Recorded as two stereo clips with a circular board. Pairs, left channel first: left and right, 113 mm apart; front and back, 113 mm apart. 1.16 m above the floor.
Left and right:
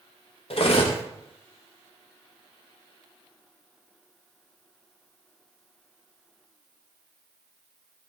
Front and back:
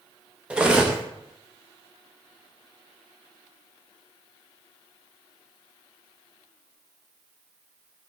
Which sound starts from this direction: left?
Cutlery clinking, at 0.5 s.